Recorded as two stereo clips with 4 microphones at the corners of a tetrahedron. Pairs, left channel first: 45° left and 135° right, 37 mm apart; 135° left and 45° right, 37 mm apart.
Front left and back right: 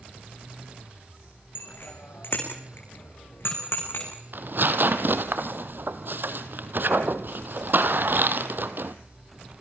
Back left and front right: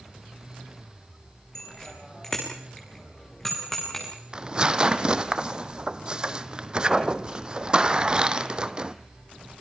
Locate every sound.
1.6 s a bicycle bell: 60° left, 6.5 m; by 4.1 s 50° left, 8 m
4.3 s tearing paper: 110° right, 1.1 m